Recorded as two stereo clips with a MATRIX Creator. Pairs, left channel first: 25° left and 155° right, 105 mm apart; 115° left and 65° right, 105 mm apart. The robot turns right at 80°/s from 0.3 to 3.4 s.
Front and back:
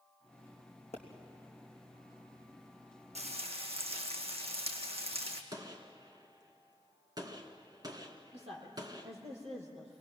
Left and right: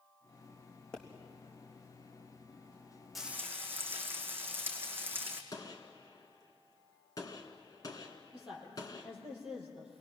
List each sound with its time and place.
0.9 s a pop: 30° left, 3.5 m; by 1.0 s 40° left, 3.5 m
3.1 s frying: 160° right, 2.5 m; by 5.4 s 140° right, 2.5 m
5.5 s a gunshot: 160° left, 1.8 m
8.3 s a woman speaking: 150° right, 6.5 m